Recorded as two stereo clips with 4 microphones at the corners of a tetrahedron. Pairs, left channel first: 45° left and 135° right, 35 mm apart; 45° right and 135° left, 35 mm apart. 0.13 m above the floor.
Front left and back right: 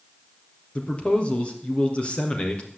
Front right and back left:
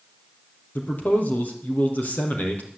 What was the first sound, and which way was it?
A man speaking, 10° right.